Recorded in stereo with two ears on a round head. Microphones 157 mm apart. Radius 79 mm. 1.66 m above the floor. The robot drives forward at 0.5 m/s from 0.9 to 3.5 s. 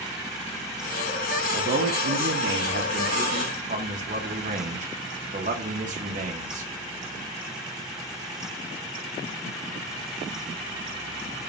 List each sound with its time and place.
1.5 s a man speaking: 60° right (ahead or behind), 0.9 m; by 6.7 s 45° right (ahead or behind), 1.2 m